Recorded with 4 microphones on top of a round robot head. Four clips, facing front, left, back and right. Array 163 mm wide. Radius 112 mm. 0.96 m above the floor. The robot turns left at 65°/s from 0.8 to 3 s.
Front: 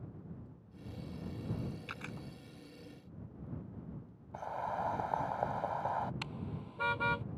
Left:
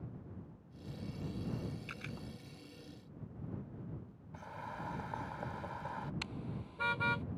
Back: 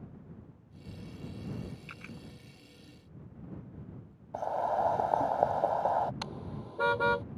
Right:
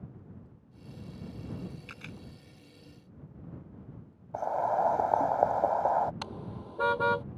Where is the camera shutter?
5° right; by 2.2 s 25° right.